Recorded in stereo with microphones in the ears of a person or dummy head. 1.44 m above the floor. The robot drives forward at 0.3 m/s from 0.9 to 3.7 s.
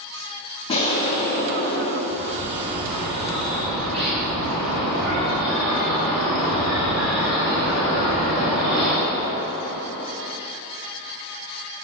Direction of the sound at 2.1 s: 60° right (ahead or behind).